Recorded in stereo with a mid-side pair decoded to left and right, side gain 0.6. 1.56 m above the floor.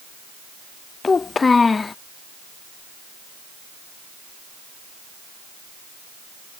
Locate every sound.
1.0 s a child speaking: 25° left